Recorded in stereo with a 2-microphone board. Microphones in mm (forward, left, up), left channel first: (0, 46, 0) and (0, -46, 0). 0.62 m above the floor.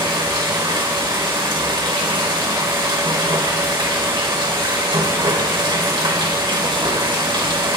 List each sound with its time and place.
0.0 s running water: 55° right (ahead or behind), 1.3 m